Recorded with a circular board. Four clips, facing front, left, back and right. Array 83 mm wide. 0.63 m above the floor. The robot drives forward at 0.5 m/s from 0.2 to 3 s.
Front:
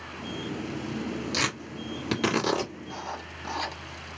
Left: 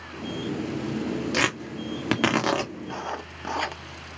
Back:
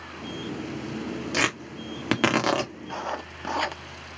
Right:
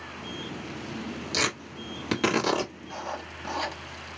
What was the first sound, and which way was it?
Tearing paper, 130° left.